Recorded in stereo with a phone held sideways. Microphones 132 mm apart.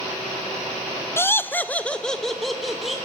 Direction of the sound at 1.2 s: 20° left (ahead or behind).